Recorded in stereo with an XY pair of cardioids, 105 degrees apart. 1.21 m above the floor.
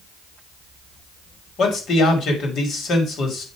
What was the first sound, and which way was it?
A man speaking, 60° left.